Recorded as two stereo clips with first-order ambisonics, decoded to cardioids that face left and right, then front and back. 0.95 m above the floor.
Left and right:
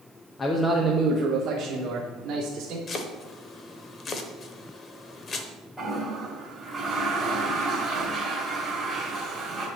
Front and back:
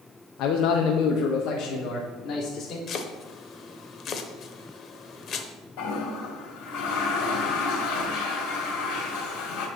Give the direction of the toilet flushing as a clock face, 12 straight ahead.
12 o'clock.